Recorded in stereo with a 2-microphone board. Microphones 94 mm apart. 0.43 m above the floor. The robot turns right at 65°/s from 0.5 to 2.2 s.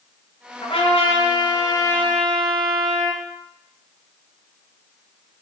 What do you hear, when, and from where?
0.6 s a trumpet: 70° left, 0.6 m; by 3.2 s 175° left, 0.6 m